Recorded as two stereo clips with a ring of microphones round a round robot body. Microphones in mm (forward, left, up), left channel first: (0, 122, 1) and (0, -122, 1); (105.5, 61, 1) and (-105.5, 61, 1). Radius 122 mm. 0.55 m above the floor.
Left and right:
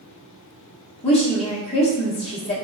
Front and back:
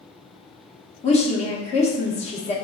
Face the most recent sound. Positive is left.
turn(degrees=40)